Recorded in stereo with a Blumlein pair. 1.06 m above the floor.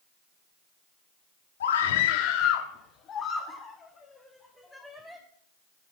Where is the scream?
60° left, 2 m; by 5.2 s straight ahead, 4.5 m.